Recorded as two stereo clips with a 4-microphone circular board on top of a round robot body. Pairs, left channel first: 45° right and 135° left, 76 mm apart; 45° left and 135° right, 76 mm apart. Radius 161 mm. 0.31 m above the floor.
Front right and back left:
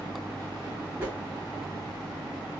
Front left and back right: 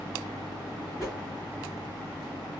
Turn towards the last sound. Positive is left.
turn(degrees=80)